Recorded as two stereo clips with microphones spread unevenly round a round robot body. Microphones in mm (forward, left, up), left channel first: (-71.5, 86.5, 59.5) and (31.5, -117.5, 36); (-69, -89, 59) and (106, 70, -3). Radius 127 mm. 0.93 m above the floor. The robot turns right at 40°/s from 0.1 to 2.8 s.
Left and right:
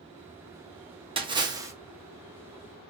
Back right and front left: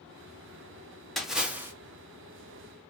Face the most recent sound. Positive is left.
turn(degrees=40)